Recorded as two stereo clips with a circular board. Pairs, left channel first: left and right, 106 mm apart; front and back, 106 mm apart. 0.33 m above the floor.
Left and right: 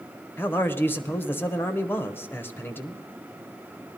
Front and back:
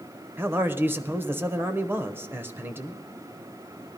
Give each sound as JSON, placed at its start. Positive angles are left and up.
{"t": 0.4, "sound": "a man speaking", "azimuth_deg": 135, "distance_m": 0.9}